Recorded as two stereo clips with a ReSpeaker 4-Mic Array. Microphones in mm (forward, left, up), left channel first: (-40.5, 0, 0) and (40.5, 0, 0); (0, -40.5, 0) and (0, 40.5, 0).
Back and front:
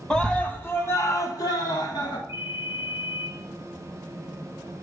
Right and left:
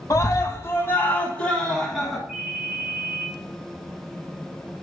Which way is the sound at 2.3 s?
155° left.